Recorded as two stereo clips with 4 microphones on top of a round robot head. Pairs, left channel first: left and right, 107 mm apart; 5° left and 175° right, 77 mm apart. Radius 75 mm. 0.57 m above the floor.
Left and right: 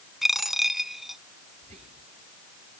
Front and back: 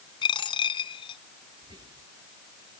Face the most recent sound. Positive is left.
turn(degrees=-125)